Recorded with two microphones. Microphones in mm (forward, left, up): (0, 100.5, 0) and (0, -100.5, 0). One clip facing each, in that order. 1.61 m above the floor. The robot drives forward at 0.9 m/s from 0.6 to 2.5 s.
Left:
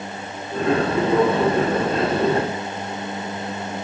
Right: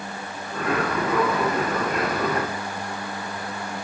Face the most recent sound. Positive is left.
No sound to turn to.